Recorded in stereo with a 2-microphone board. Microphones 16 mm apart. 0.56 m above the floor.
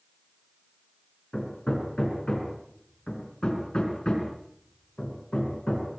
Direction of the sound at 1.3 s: 65° left (ahead or behind).